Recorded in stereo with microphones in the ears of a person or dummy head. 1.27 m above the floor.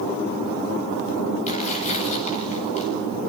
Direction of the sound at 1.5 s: 40° left (ahead or behind).